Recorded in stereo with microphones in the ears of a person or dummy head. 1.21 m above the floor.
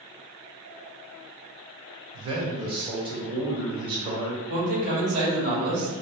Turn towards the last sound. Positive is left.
turn(degrees=-45)  # may be behind; listen again after turning